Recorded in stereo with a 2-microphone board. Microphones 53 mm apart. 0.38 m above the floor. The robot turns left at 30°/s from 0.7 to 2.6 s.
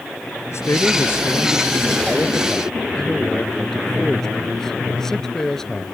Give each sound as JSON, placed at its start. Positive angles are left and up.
{"t": 0.5, "sound": "a man speaking", "azimuth_deg": 70}